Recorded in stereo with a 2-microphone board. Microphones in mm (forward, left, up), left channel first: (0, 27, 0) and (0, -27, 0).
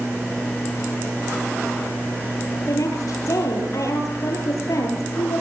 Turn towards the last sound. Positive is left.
turn(degrees=75)  # may be behind; listen again after turning